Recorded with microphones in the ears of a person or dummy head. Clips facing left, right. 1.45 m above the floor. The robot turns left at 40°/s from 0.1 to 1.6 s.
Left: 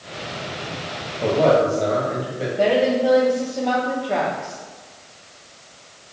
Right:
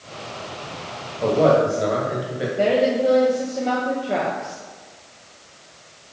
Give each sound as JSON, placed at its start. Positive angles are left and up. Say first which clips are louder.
{"t": 1.2, "sound": "a man speaking", "louder": "even", "side_deg": 5, "distance_m": 1.8}
{"t": 2.6, "sound": "a woman speaking", "louder": "left 1 dB", "side_deg": -15, "distance_m": 1.0}